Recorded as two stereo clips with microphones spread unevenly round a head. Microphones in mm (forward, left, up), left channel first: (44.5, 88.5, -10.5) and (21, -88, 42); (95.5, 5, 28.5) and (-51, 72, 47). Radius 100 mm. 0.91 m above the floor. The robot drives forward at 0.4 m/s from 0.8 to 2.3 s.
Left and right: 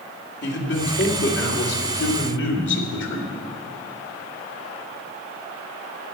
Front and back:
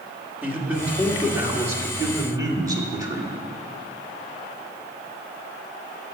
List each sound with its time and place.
0.4 s a man speaking: 75° left, 3 m; by 3.4 s 85° left, 3 m